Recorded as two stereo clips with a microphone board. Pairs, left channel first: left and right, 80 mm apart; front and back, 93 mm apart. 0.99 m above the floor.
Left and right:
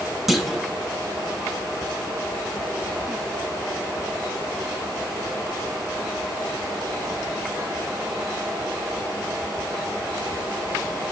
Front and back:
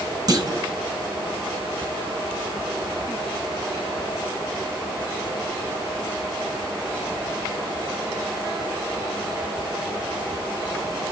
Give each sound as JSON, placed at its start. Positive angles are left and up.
{"t": 0.3, "sound": "a clunk", "azimuth_deg": 180, "distance_m": 0.7}